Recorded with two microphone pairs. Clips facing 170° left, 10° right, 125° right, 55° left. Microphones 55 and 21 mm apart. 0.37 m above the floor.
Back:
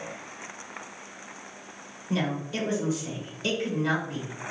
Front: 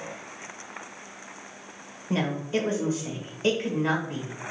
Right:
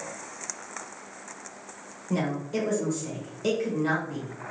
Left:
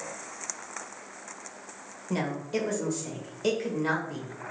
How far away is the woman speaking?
About 1.0 m.